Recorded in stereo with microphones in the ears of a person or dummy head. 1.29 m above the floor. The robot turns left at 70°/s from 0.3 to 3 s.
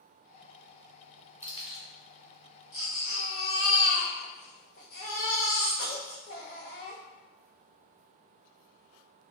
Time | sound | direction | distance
1.4 | keys jangling | 5° right (ahead or behind) | 1.3 m
2.7 | a baby crying | 25° left (ahead or behind) | 0.5 m